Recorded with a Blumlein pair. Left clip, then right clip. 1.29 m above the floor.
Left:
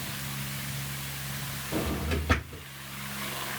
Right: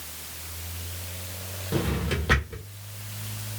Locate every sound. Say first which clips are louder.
1.7 s a drawer: right 3 dB; 25° right, 1.1 m